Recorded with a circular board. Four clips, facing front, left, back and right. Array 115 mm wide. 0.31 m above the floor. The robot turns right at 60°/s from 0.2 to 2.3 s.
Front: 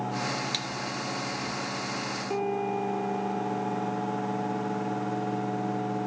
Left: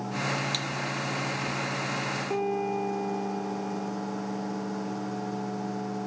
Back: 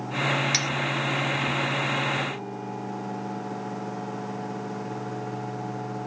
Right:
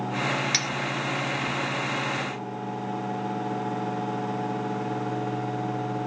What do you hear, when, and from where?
0.5 s cutlery clinking: 130° right; by 0.7 s 125° right
2.3 s a piano: 50° left